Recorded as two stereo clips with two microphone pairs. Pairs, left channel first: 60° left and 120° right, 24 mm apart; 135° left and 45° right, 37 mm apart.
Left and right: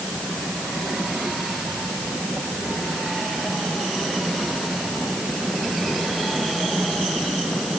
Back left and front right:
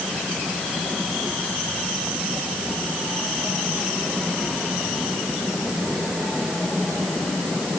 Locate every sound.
Only background noise.